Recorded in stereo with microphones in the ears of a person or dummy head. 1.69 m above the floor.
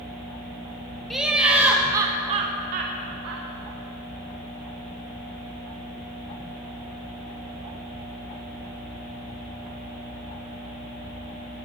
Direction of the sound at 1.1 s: Centre (ahead or behind).